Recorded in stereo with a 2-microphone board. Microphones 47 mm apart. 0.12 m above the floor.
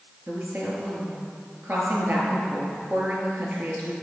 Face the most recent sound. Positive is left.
turn(degrees=-45)  # may be behind; listen again after turning